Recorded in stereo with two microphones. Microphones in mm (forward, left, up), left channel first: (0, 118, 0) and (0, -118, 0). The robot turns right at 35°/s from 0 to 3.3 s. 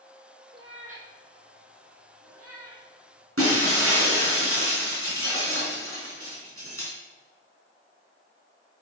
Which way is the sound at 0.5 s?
20° right (ahead or behind).